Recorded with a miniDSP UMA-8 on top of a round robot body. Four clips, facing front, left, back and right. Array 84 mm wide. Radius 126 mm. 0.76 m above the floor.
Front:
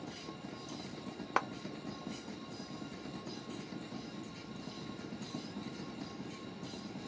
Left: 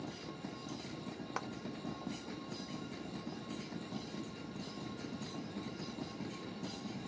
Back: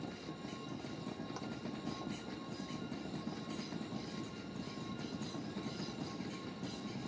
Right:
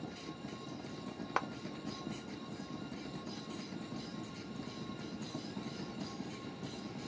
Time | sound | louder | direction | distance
1.4 | a clap | right 7 dB, front 12 dB | 20° right | ?